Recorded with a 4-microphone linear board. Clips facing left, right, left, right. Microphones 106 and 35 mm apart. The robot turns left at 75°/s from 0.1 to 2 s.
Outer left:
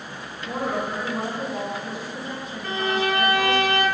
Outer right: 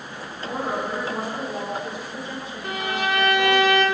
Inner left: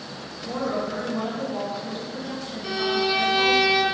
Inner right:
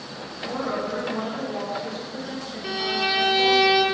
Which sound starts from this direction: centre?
A violin, at 2.6 s.